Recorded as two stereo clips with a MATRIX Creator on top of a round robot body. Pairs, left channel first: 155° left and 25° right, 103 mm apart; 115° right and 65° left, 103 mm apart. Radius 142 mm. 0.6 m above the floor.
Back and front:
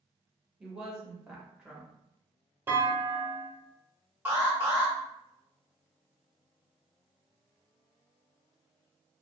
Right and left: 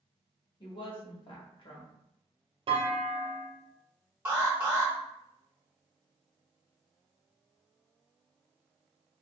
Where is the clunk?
45° left, 0.9 m.